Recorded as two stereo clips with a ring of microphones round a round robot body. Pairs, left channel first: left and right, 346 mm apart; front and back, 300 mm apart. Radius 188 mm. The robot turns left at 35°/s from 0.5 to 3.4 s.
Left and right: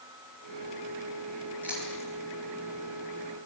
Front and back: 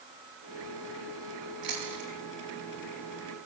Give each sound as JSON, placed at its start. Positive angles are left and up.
{"t": 1.6, "sound": "chewing", "azimuth_deg": -175, "distance_m": 8.0}